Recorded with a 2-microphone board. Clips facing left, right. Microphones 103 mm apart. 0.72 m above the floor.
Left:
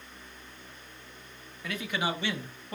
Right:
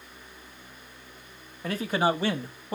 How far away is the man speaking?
About 1.8 m.